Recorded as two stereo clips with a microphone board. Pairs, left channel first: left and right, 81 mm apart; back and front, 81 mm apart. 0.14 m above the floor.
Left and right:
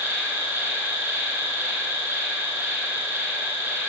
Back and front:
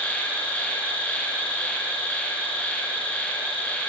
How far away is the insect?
About 1.0 m.